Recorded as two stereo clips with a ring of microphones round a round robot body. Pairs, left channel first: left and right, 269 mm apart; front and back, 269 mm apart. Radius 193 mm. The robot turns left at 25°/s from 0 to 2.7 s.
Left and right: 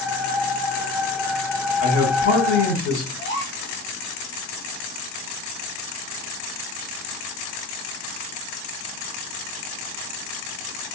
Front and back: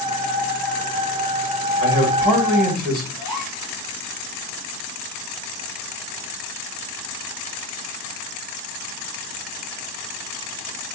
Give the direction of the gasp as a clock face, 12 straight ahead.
7 o'clock.